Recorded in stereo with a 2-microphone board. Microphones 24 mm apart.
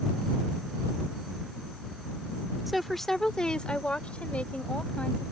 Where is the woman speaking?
5° right (ahead or behind); by 5.3 s 70° left (ahead or behind).